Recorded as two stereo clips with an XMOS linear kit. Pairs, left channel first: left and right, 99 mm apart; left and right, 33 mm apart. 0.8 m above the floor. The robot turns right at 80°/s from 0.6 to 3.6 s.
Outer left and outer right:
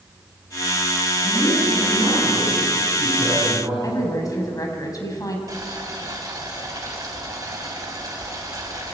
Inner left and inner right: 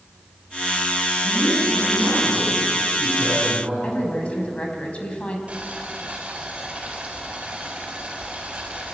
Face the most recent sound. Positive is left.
turn(degrees=-35)  # may be behind; listen again after turning